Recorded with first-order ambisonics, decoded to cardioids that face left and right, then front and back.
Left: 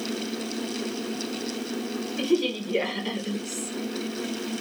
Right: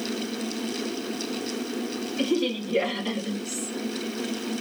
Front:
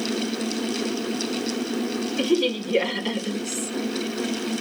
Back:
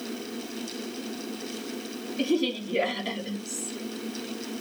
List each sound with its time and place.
2.2 s a woman speaking: 10° left, 3 m